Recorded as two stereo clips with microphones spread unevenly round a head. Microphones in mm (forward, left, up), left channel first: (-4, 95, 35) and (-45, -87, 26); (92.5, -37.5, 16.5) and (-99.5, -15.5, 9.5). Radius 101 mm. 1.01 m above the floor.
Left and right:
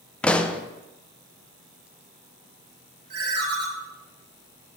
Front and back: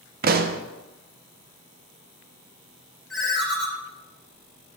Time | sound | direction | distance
0.2 | a pop | 165° left | 0.5 m
3.1 | a ringtone | 95° right | 2 m